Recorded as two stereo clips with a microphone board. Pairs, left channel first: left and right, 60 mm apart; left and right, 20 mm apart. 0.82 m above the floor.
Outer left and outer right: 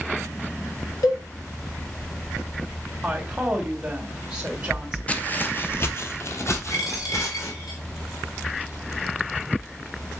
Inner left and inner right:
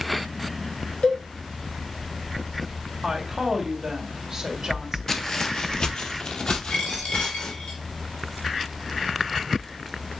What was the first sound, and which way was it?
A cowbell, 75° left (ahead or behind).